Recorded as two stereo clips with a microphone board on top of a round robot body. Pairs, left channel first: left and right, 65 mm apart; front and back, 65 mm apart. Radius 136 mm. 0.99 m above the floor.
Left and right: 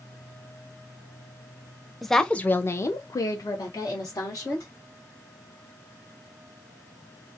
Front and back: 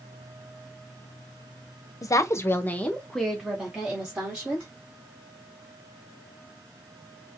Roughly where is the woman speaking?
Ahead.